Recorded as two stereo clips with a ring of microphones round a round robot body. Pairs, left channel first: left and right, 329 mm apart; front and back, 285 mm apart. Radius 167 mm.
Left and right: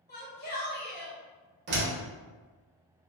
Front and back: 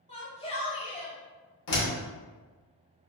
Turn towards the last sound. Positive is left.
turn(degrees=-30)